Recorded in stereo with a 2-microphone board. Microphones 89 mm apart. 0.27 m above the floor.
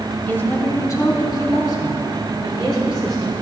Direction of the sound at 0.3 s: 20° left (ahead or behind).